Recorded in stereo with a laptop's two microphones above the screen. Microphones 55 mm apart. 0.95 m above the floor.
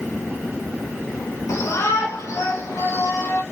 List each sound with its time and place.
1.5 s a shout: 75° left (ahead or behind), 4 m; by 3.4 s 80° left, 5 m